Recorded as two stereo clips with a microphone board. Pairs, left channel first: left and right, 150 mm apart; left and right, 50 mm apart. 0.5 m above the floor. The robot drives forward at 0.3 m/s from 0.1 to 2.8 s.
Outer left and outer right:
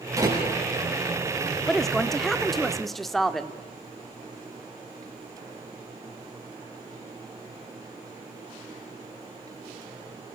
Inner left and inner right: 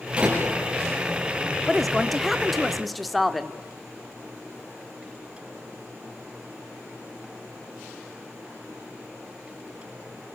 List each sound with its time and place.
0.2 s a door slam: 20° right (ahead or behind), 9 m
1.7 s a woman speaking: centre (ahead or behind), 1.2 m